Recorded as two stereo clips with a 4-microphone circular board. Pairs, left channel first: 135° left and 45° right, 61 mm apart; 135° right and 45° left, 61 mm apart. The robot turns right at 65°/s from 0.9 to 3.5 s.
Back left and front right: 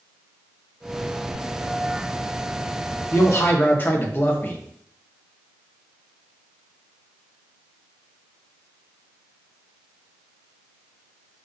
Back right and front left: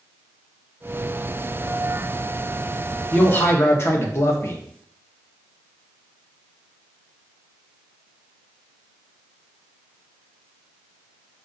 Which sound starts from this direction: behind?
A man speaking, at 3.1 s.